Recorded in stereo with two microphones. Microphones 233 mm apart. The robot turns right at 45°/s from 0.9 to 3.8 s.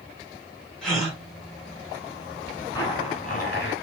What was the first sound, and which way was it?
A gasp, 5° left (ahead or behind).